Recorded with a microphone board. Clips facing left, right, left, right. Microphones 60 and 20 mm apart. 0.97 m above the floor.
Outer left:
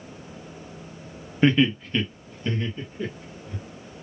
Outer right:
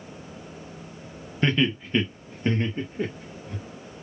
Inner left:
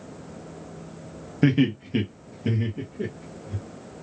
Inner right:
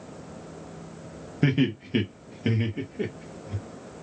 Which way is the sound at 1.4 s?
10° left (ahead or behind).